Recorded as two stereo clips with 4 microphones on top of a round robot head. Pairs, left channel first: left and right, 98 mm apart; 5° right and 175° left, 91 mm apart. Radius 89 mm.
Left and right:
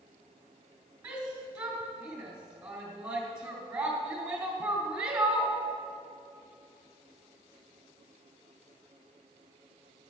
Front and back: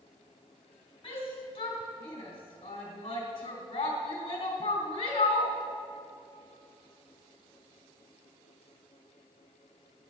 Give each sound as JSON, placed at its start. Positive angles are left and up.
{"t": 1.0, "sound": "a shout", "azimuth_deg": -30, "distance_m": 3.0}